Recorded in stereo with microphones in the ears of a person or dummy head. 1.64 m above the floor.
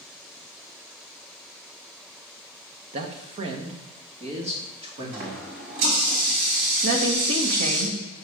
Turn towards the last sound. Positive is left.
turn(degrees=-60)  # may be behind; listen again after turning